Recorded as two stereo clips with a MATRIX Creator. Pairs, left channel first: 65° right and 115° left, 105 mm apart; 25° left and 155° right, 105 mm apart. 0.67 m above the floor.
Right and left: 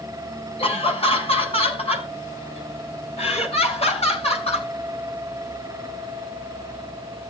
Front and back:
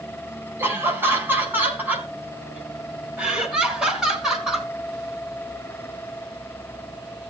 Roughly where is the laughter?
Right.